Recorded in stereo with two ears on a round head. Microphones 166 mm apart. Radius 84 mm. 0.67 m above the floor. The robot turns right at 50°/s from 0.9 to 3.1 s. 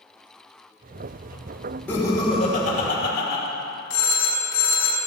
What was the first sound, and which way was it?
Laughter, 15° left.